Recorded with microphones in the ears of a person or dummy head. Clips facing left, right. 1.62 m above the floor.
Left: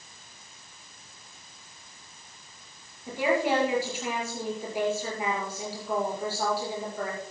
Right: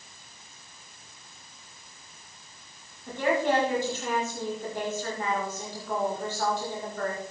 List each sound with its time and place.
3.1 s a woman speaking: 10° left (ahead or behind), 5.5 m